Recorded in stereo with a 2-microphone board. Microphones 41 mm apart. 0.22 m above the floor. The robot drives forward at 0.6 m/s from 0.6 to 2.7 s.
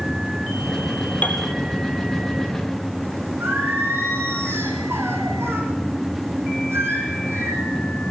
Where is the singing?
80° right, 6.5 m.